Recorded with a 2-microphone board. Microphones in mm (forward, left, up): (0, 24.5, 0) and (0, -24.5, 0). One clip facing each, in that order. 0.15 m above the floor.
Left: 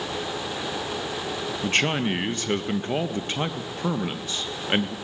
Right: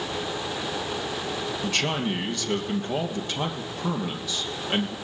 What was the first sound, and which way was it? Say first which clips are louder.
A man speaking: left 4 dB; 40° left (ahead or behind).